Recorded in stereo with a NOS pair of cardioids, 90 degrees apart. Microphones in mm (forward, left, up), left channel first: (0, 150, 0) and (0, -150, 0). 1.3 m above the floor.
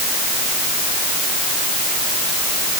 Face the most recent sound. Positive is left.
No sound to turn to.